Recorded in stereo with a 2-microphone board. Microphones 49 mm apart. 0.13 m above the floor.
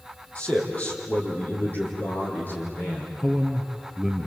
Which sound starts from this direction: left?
A man speaking, at 0.3 s.